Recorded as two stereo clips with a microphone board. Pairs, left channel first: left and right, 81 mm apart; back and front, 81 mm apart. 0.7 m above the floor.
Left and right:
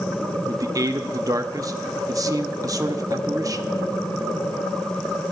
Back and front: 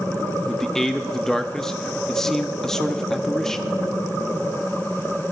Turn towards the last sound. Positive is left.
turn(degrees=-95)